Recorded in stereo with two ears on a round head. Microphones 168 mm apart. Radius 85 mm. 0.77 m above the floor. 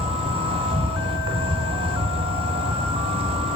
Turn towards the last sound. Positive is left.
turn(degrees=-30)  # may be behind; listen again after turning